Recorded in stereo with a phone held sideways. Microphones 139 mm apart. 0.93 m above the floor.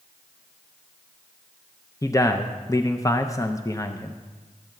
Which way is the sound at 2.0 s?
25° left (ahead or behind).